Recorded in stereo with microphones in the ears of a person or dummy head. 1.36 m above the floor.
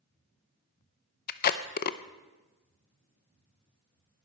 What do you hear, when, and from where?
1.3 s tape being pulled: 45° left (ahead or behind), 0.6 m